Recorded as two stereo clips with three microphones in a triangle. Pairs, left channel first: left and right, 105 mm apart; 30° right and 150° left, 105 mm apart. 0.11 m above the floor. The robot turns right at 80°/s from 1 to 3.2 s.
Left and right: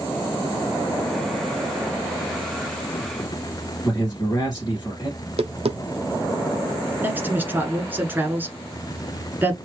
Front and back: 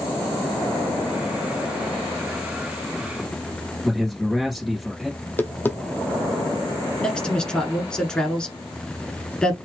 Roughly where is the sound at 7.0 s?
Right.